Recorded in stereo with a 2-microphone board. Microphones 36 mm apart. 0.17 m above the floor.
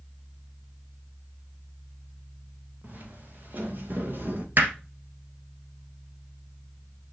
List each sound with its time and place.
2.8 s footsteps: 50° right (ahead or behind), 2.5 m; by 4.5 s 65° right (ahead or behind), 2 m
4.6 s hammering: 60° right (ahead or behind), 2.0 m